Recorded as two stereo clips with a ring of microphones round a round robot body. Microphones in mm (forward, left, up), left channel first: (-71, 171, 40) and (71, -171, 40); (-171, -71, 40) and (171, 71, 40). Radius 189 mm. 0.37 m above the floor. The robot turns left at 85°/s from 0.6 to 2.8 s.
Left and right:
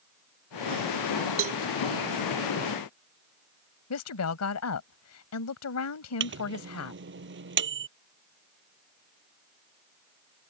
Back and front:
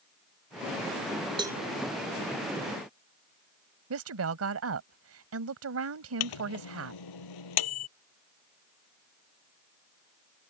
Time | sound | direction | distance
1.4 | a cowbell | 45° right | ?
3.9 | a woman speaking | 70° left | ?
6.2 | a microwave | 130° right | ?